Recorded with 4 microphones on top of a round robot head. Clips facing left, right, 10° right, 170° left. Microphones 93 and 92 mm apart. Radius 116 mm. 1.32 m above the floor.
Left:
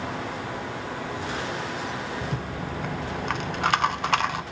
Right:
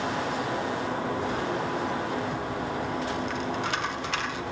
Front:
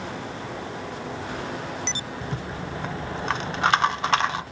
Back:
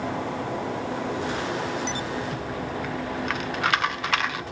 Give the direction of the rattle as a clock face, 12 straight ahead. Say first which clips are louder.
Right 2 dB, back 3 dB; 10 o'clock.